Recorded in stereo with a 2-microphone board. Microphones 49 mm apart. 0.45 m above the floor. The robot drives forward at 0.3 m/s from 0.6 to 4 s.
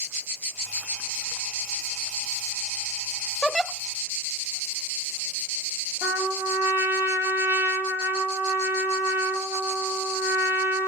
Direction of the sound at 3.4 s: Centre (ahead or behind).